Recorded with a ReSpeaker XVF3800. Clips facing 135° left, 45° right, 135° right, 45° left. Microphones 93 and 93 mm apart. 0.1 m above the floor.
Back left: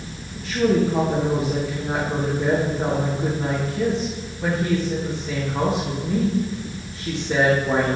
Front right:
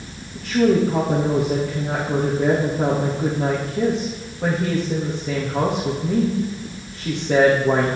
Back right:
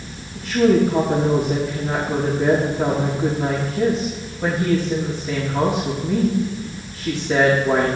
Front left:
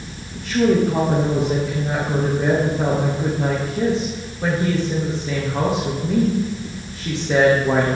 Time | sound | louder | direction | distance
0.3 | a woman speaking | front right 2 dB, back right 1 dB | 20° right | 4.5 m